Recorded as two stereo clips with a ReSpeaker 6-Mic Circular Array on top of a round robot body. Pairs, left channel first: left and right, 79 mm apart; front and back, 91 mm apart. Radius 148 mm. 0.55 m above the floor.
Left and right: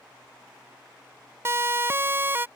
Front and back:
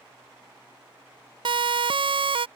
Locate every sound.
1.4 s a siren: 150° right; by 2.5 s 155° right